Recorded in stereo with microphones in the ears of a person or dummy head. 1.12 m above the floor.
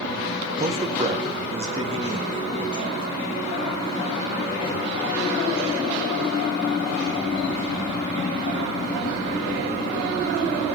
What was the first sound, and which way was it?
A man speaking, 30° right (ahead or behind).